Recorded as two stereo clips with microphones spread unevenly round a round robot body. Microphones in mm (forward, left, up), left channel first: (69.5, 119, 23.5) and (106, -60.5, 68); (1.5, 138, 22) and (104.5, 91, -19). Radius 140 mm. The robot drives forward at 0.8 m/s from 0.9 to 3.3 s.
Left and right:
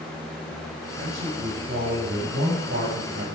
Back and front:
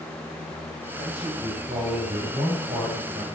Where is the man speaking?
65° right, 6.5 m; by 3.3 s 80° right, 6 m.